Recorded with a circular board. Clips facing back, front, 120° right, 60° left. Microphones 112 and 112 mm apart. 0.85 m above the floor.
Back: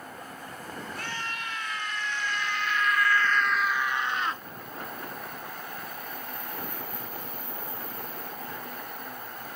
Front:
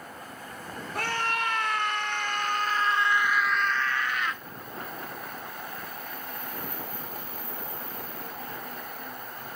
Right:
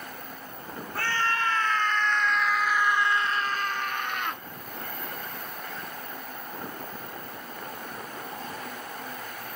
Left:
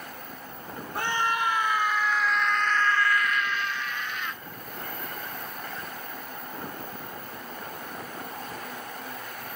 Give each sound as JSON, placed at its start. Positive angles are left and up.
{"t": 0.9, "sound": "a scream", "azimuth_deg": -10}